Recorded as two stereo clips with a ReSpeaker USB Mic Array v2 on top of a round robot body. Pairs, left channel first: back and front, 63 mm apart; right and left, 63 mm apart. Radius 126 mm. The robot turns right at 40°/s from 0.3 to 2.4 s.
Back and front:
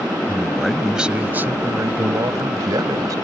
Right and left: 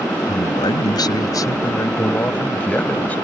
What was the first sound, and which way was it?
A man speaking, 105° right.